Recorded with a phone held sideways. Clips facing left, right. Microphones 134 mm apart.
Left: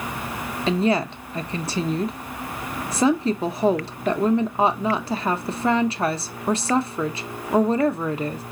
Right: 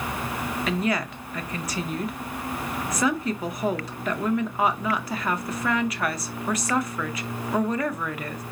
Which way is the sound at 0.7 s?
30° left (ahead or behind).